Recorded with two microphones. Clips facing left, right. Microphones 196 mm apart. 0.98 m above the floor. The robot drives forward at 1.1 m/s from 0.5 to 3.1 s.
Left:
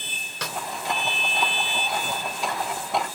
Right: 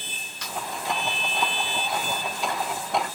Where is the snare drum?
85° left; by 0.6 s 80° left.